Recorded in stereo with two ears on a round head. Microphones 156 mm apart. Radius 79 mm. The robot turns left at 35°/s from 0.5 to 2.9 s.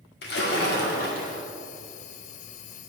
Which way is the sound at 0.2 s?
80° left.